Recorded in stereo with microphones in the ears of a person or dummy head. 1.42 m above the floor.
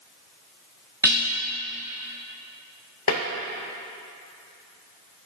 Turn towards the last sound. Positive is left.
turn(degrees=65)  # may be behind; listen again after turning